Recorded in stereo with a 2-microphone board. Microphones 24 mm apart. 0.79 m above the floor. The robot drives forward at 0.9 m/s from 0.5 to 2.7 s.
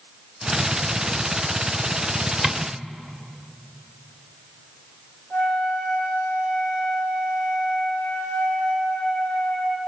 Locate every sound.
2.4 s tapping: 5° left (ahead or behind), 1.3 m
5.3 s a flute: 55° left (ahead or behind), 3.5 m